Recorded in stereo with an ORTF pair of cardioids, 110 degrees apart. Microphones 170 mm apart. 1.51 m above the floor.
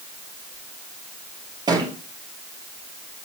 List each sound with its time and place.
1.7 s a thud: 25° right, 6.5 m